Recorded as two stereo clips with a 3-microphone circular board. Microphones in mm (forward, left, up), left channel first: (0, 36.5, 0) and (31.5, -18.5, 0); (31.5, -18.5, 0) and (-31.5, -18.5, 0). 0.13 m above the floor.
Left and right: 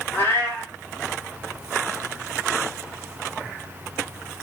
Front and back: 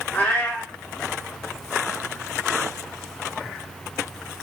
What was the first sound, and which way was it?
A cat meowing, 65° left.